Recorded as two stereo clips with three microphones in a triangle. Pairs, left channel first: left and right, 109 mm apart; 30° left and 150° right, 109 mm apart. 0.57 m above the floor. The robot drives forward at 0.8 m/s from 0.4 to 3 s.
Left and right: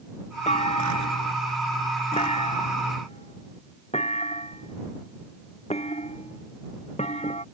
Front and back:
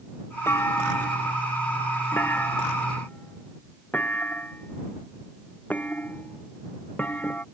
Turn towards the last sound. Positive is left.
turn(degrees=105)